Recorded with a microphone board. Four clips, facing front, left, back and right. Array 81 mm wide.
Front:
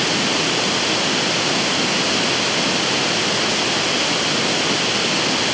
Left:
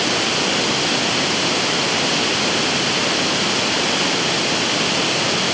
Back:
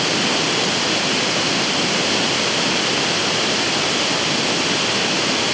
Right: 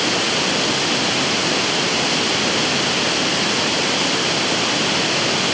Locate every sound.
Only background noise.